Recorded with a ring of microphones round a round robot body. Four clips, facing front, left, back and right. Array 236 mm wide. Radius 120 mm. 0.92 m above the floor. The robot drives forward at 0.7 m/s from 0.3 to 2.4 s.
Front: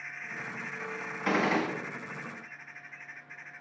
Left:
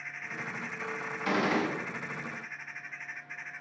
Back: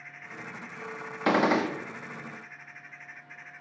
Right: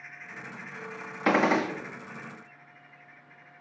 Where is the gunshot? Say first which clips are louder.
Right 5 dB, back 4 dB; 130° right, 0.5 m; by 1.7 s 150° right, 0.7 m.